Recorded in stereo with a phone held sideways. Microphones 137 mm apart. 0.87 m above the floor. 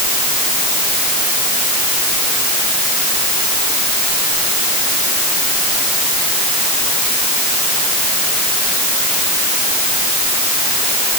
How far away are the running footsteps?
I don't hear running footsteps.